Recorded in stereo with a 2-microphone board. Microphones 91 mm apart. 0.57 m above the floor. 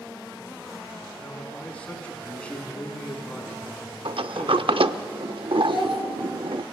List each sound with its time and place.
1.2 s a man speaking: 10° left (ahead or behind), 6 m
4.0 s a sliding door: 70° right (ahead or behind), 0.7 m
5.6 s a child speaking: 65° right (ahead or behind), 6 m